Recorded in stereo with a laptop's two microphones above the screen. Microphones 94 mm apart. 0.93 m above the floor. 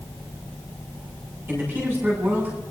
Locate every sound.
1.5 s a man speaking: 20° right (ahead or behind), 7 m